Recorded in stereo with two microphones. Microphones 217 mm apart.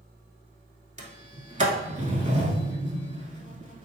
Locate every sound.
1.0 s a sliding door: 35° right (ahead or behind), 0.7 m